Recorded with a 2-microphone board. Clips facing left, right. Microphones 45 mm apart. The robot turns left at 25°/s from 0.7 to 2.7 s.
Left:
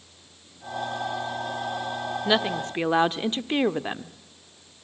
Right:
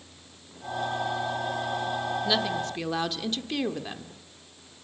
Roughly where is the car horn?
No car horn in this recording.